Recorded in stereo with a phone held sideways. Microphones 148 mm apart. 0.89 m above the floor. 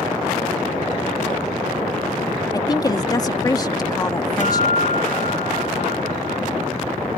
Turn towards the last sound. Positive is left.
turn(degrees=60)  # may be behind; listen again after turning